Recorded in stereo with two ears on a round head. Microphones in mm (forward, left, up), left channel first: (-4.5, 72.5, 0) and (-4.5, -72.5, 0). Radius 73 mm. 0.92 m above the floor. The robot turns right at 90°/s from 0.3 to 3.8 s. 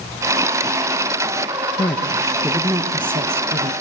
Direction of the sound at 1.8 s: 130° left.